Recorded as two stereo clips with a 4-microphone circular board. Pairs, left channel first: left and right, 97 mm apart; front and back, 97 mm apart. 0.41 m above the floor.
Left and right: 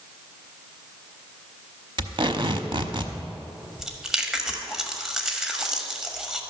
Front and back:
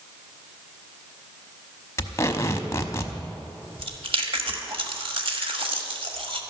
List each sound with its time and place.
2.0 s tape being pulled: 60° right, 0.8 m
3.8 s chewing: 175° right, 1.3 m